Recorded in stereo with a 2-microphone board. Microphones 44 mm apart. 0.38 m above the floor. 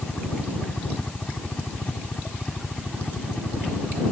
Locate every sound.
0.0 s a helicopter: 30° left (ahead or behind)